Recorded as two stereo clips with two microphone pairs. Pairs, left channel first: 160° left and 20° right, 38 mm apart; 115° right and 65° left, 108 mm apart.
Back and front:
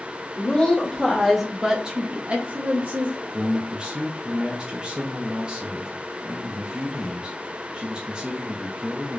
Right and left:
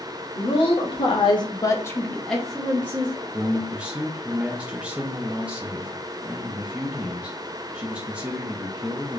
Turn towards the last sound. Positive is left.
turn(degrees=0)